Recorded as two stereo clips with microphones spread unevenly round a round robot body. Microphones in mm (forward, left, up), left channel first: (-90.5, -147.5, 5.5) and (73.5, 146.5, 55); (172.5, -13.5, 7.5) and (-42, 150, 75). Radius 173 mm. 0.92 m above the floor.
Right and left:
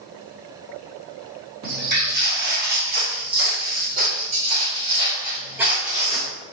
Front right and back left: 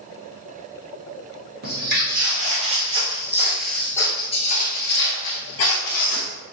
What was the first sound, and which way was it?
Footsteps, 110° left.